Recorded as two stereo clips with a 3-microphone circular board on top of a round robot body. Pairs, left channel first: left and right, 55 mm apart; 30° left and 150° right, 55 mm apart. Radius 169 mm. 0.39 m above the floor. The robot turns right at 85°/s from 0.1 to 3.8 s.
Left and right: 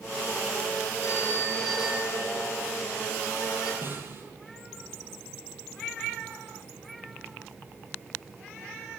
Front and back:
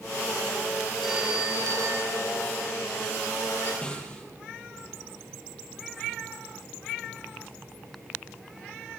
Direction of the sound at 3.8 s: 40° right.